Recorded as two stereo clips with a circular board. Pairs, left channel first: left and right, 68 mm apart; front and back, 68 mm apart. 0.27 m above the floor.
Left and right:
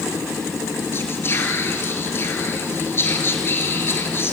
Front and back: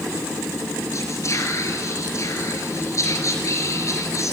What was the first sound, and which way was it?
Whispering, 40° left.